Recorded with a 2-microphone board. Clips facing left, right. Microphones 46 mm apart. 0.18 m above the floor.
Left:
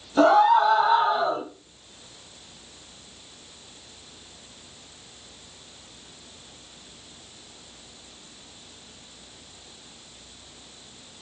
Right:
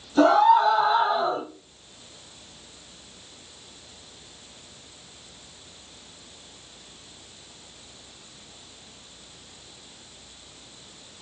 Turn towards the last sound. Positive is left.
turn(degrees=15)  # may be behind; listen again after turning